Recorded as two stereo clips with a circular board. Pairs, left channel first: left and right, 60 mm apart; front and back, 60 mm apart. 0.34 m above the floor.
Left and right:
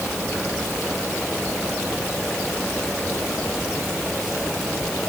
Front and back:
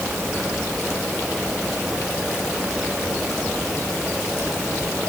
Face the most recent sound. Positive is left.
No sound to turn to.